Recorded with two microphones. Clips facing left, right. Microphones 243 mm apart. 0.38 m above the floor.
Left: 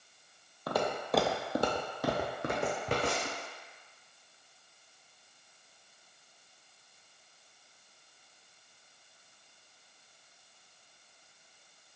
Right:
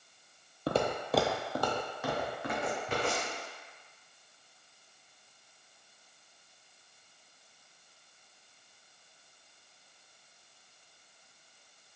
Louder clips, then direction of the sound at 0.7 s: Right 2 dB; 30° right (ahead or behind).